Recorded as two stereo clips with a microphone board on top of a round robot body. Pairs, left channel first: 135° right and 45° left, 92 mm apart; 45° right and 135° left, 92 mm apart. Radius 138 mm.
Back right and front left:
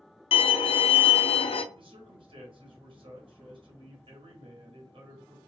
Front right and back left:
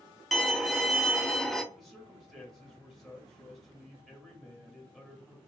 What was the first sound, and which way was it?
A violin, 135° right.